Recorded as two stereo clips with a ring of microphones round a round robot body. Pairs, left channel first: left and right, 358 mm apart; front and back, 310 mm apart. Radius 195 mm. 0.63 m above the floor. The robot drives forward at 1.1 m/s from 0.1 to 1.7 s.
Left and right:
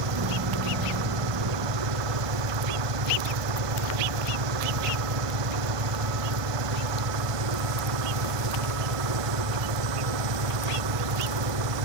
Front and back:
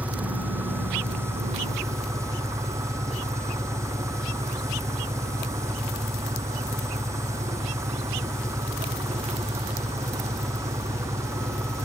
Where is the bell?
I don't hear a bell.